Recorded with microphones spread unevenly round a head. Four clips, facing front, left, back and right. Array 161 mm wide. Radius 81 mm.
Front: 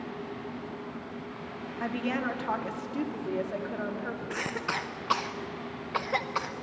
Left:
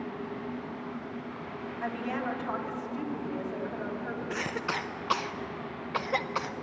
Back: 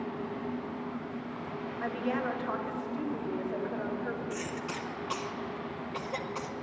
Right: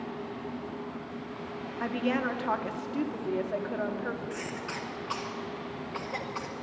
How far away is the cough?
About 0.8 m.